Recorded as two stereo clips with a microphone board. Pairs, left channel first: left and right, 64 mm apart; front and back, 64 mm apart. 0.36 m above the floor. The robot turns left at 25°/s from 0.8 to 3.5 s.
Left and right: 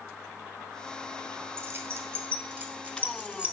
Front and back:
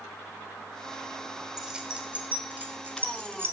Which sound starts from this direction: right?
Keys jangling, at 1.6 s.